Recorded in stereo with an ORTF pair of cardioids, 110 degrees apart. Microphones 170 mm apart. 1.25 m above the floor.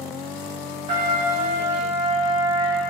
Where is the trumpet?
35° right, 2 m.